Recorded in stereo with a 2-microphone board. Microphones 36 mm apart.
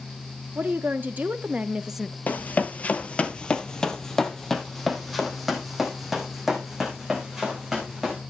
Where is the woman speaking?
65° right (ahead or behind), 1.5 m; by 2.2 s 10° left (ahead or behind), 0.7 m.